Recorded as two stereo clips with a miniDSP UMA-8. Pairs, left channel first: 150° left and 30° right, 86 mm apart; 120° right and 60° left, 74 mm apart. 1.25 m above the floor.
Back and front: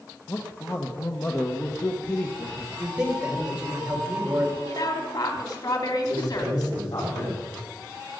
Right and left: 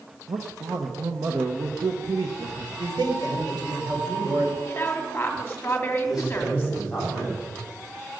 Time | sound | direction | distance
0.3 | a man speaking | 95° left | 1.3 m
2.8 | a man speaking | 50° left | 4.5 m
4.7 | a woman speaking | 175° left | 3 m
6.0 | a man speaking | 140° left | 8.5 m